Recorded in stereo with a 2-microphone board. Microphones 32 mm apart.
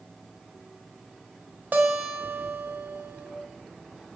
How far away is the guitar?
About 0.9 m.